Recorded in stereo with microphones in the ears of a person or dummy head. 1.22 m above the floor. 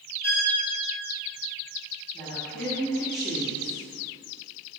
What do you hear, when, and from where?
0.2 s a violin: 10° left (ahead or behind), 3 m
2.1 s a woman speaking: 10° left (ahead or behind), 2.5 m